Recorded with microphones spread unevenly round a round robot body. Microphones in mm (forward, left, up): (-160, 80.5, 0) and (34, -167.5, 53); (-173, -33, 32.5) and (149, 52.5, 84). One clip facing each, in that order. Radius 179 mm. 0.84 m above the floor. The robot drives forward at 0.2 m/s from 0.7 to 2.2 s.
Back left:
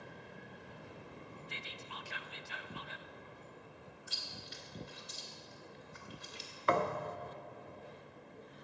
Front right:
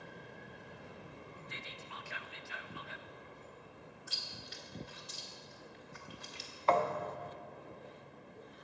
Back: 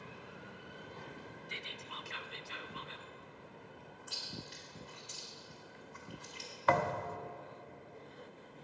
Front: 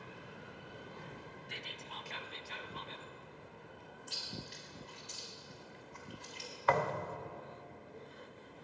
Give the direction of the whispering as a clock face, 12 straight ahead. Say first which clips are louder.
Even, even; 8 o'clock.